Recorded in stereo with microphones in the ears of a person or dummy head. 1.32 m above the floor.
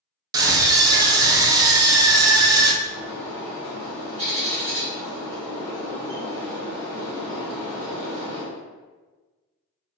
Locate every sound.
0.3 s a scream: 20° right (ahead or behind), 0.5 m
2.8 s a bird: 35° right (ahead or behind), 1.1 m